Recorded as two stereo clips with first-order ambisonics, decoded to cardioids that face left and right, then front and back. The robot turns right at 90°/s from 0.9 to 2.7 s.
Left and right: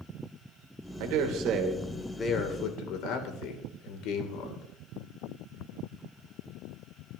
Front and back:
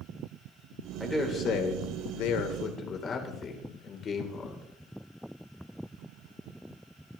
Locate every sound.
1.0 s a man speaking: 95° right, 2.5 m; by 4.6 s 60° left, 2.5 m